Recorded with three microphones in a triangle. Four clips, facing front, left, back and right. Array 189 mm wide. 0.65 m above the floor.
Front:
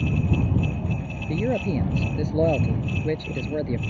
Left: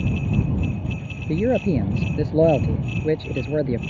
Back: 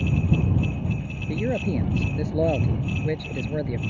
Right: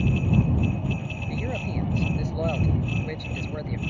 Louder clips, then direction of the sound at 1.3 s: Left 12 dB, front 1 dB; 85° left.